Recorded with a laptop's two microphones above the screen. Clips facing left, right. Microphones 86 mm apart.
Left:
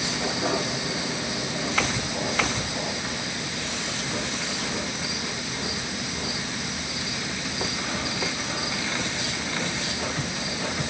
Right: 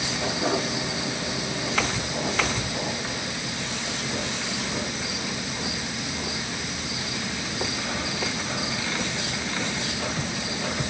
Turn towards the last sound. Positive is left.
No sound to turn to.